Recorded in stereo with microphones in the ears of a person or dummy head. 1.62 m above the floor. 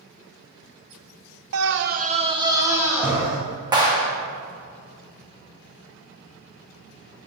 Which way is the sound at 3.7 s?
20° right (ahead or behind).